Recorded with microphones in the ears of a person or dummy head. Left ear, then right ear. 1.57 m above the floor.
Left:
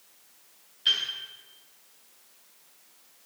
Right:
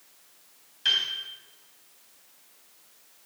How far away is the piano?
About 3.5 m.